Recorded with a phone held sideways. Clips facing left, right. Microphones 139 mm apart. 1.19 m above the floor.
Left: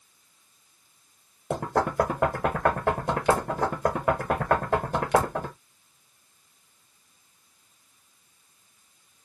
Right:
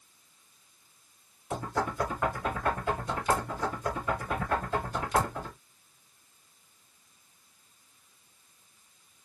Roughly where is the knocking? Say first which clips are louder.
Left 7 dB; left.